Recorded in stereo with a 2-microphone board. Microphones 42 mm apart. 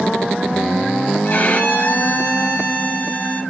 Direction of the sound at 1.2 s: 40° left (ahead or behind).